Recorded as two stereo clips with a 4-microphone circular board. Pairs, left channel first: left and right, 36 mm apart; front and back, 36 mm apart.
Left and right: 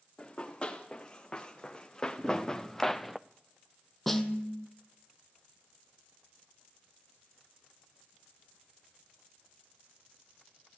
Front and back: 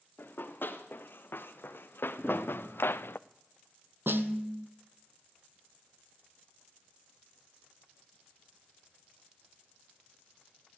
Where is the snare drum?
175° left, 1.0 m.